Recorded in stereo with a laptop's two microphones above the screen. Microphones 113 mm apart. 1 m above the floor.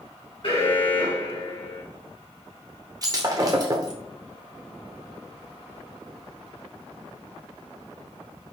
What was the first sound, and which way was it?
An alarm, 45° left (ahead or behind).